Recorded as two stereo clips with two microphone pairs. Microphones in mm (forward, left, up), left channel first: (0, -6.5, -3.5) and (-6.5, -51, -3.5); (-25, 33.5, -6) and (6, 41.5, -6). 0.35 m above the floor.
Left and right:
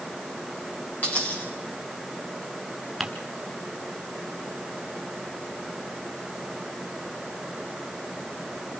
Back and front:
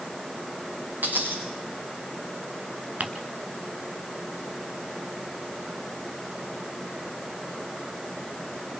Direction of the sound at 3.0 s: 15° right.